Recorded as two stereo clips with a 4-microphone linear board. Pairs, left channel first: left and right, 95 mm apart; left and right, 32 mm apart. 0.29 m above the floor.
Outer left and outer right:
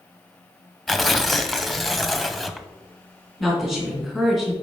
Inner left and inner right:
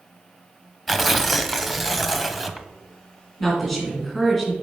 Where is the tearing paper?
Centre (ahead or behind), 0.5 m.